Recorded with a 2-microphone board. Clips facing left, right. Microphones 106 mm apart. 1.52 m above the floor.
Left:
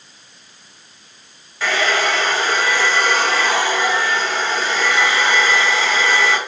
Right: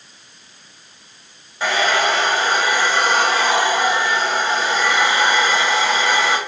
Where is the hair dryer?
20° right (ahead or behind), 2.5 m.